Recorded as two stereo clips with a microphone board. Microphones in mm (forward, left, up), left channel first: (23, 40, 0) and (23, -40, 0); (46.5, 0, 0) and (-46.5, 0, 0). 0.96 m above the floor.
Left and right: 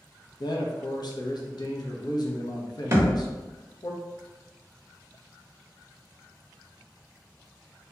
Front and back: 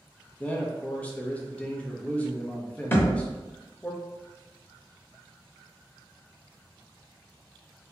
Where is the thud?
55° right, 0.8 m.